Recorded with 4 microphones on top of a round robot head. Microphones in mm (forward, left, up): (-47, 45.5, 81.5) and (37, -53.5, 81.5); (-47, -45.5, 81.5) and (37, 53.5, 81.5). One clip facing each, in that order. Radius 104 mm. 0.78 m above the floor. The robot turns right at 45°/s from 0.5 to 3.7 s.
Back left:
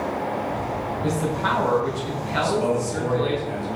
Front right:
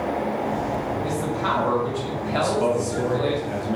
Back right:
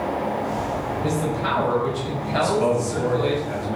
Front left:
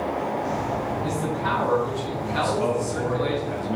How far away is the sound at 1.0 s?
About 4 m.